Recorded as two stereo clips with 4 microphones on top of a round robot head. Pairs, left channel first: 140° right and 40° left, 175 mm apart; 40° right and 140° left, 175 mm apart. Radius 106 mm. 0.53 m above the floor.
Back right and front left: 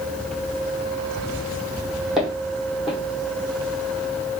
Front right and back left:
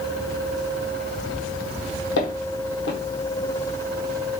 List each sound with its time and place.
2.2 s footsteps: 50° right, 1.4 m